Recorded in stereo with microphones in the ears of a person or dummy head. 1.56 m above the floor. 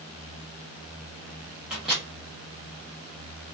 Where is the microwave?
Centre (ahead or behind), 0.6 m.